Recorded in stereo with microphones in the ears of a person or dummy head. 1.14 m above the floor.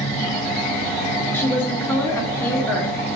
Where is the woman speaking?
10° left (ahead or behind), 1.6 m.